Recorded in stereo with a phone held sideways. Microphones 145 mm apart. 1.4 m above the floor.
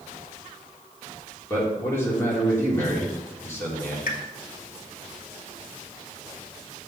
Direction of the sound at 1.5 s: 15° left (ahead or behind).